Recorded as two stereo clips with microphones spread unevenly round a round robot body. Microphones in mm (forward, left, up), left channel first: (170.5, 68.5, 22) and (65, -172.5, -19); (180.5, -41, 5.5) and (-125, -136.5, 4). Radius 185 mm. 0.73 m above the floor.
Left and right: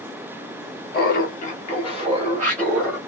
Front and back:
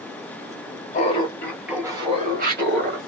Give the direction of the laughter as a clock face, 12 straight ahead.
10 o'clock.